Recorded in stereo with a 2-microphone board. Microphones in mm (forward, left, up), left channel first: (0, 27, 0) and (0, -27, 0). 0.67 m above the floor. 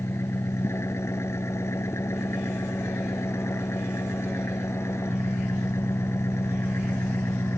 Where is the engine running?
60° left (ahead or behind).